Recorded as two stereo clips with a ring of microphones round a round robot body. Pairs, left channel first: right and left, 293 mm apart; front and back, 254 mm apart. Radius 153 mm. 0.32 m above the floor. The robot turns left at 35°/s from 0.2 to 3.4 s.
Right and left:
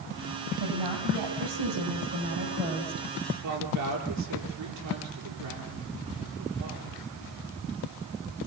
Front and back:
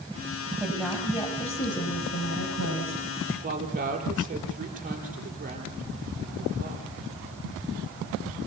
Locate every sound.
0.6 s a woman speaking: 100° left, 8.5 m; by 3.1 s 15° left, 8.5 m
3.4 s a woman speaking: 120° left, 8.5 m